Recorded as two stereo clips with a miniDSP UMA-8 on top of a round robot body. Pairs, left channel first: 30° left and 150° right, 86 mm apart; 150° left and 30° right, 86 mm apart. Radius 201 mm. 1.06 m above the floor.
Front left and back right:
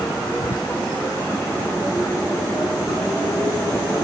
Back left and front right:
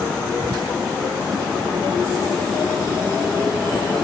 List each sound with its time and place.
0.4 s whispering: 5° left, 0.6 m